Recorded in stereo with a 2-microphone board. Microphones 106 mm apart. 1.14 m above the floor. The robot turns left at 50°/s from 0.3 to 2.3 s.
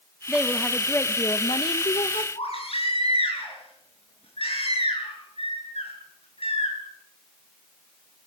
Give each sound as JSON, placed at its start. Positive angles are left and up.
{"t": 0.3, "sound": "a woman speaking", "azimuth_deg": -170, "distance_m": 1.2}
{"t": 2.4, "sound": "a baby crying", "side_deg": 70, "distance_m": 7.5}